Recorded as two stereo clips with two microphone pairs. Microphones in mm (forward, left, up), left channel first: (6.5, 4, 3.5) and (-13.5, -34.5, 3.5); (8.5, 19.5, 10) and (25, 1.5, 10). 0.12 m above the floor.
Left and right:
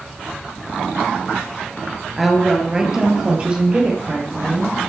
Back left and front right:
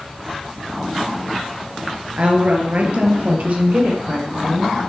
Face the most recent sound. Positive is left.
turn(degrees=-65)